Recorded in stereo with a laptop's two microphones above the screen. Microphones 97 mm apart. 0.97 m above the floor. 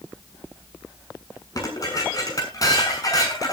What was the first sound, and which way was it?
Dishes clattering, 40° left (ahead or behind).